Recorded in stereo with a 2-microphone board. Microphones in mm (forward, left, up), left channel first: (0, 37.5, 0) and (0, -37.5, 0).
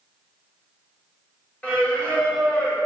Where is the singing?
20° left (ahead or behind), 1.5 m.